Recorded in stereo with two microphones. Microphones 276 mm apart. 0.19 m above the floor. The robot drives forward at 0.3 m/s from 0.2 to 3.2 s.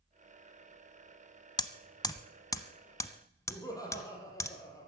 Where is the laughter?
15° left (ahead or behind), 5.5 m.